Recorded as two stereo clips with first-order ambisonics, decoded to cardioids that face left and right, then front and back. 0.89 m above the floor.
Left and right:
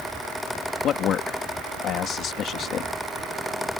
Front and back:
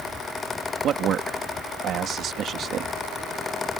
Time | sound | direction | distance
0.8 | a man speaking | 135° left | ?